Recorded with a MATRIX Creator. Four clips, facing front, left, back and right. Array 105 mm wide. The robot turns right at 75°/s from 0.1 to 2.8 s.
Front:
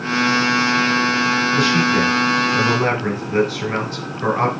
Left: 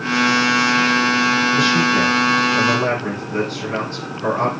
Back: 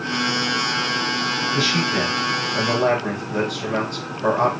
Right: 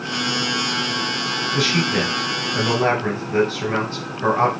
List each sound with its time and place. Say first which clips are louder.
1.6 s a man speaking: left 4 dB, front 4 dB; 115° right, 3 m; by 4.5 s 20° right, 3 m